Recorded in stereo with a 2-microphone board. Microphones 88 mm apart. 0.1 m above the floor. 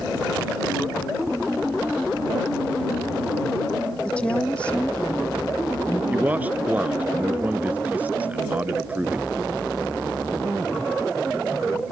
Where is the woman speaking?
15° left (ahead or behind).